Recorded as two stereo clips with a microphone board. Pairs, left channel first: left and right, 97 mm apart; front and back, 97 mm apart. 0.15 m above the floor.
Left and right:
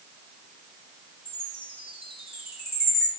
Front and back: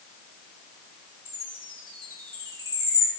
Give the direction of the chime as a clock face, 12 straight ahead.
6 o'clock.